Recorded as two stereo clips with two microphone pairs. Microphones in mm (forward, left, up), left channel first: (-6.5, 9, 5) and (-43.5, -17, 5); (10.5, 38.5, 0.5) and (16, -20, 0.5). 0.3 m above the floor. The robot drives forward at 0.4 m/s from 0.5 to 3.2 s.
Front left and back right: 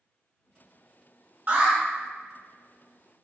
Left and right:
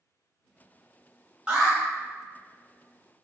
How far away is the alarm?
About 1.0 m.